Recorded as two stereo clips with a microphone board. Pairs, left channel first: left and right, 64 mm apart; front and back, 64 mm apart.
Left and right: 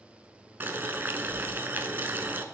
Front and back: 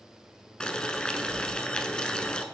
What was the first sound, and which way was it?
Boiling, 65° right.